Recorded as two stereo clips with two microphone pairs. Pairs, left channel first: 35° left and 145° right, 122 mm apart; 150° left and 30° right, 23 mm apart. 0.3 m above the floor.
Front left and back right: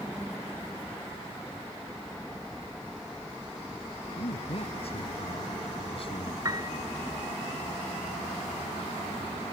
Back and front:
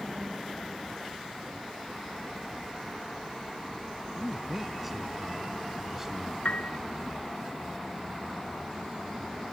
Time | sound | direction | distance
4.2 | a man speaking | 60° left | ?
6.5 | a piano | 155° left | ?